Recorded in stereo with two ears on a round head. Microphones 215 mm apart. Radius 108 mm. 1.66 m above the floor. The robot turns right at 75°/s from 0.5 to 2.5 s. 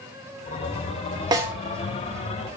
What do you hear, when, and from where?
1.3 s a snare drum: 15° right (ahead or behind), 1.0 m; by 1.5 s centre (ahead or behind), 1.0 m